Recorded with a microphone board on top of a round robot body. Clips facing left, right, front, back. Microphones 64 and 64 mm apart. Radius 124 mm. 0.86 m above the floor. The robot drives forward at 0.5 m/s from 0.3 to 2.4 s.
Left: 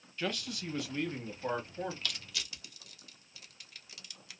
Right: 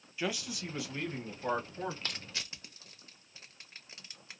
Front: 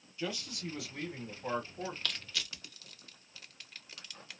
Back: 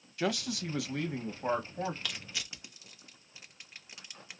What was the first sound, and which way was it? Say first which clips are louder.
A man speaking: right 1 dB, back 6 dB; 170° right.